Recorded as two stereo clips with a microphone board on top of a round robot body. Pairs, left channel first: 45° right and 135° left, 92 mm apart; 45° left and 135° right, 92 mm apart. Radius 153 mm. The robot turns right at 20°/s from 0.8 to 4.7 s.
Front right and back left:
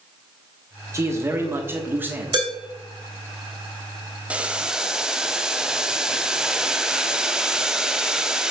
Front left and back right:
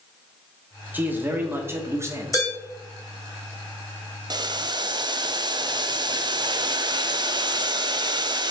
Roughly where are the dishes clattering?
Left.